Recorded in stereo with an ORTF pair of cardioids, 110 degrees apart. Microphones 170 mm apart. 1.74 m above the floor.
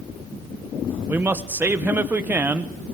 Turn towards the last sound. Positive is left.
turn(degrees=-10)